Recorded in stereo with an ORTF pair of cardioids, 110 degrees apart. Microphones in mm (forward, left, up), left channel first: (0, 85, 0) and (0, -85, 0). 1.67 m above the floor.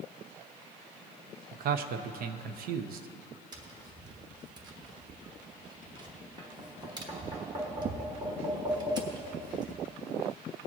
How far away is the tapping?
About 1.2 m.